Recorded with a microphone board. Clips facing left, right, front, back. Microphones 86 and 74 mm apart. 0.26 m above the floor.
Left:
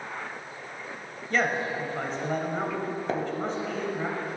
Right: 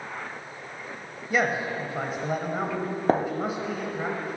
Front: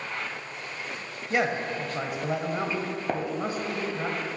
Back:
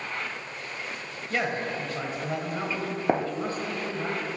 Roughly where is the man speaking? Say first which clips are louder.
Right 1 dB, front 2 dB; ahead right.